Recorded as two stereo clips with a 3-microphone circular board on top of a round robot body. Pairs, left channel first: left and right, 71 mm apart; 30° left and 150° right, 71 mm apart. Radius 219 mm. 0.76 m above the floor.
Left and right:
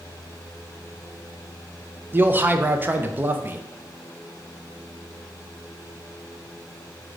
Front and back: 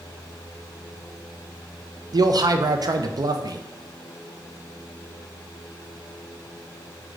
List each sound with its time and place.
2.1 s a man speaking: 150° right, 0.6 m